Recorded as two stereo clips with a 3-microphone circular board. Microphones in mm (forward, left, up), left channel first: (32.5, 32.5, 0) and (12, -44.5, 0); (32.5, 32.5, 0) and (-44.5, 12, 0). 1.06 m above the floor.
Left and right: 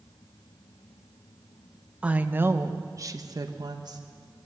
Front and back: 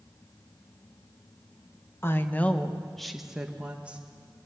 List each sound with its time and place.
2.0 s a woman speaking: 35° right, 1.0 m; by 4.0 s 95° right, 1.5 m